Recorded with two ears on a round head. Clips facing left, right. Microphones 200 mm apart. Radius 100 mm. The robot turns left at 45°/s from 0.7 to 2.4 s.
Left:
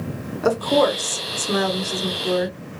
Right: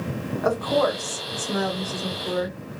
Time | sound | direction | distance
0.4 | a woman speaking | 140° left | 1.4 m